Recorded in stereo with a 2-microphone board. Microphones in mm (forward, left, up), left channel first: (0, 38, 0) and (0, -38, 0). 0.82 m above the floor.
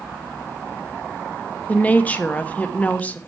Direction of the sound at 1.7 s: 20° left (ahead or behind).